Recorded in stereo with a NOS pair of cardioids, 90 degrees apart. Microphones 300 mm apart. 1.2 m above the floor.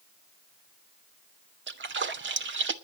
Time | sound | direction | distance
1.7 | a splash | 40° right | 1.7 m